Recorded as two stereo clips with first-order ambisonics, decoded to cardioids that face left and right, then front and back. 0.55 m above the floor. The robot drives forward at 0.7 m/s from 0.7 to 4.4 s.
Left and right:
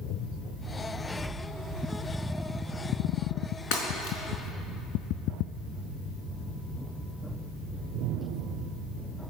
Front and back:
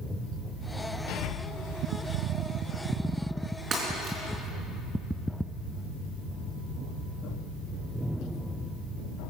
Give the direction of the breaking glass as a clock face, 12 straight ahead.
8 o'clock.